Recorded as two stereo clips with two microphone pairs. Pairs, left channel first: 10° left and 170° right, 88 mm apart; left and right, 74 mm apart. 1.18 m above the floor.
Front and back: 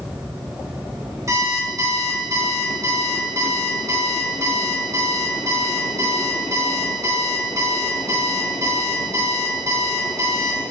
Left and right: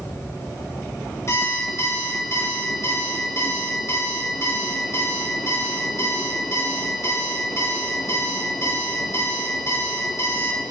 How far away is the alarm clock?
About 1.9 m.